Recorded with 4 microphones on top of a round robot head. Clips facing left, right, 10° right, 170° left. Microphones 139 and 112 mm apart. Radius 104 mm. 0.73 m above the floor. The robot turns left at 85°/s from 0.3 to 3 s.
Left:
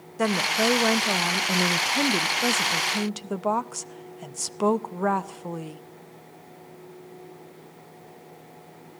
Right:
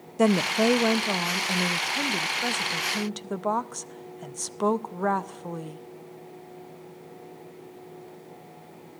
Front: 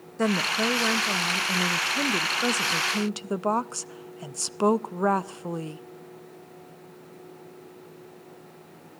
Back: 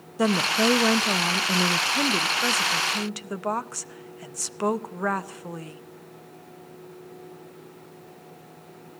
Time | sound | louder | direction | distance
0.2 | a woman speaking | right 3 dB, back 3 dB | 120° right | 0.6 m